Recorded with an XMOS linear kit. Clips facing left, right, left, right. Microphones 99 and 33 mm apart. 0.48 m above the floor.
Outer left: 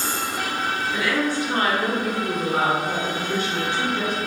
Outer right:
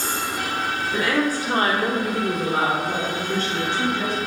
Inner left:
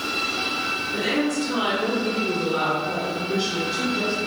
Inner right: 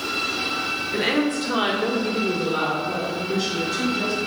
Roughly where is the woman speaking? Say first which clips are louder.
Outer right 3 dB, inner right 3 dB; right.